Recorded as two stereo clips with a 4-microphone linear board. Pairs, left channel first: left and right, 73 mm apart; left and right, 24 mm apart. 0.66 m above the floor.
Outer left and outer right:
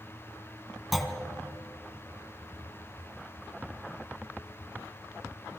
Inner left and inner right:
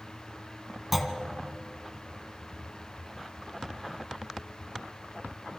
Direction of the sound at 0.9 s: Centre (ahead or behind).